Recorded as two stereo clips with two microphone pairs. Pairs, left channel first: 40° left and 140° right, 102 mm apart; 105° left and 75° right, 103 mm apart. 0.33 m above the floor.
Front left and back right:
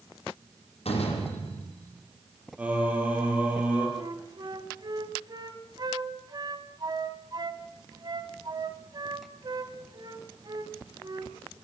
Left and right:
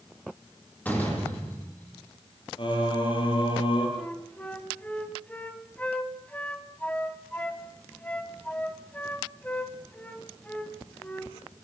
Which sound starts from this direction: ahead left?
A door slam, at 0.8 s.